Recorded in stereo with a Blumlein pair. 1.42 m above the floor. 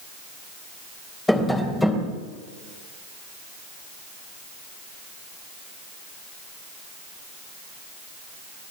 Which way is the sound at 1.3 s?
5° left.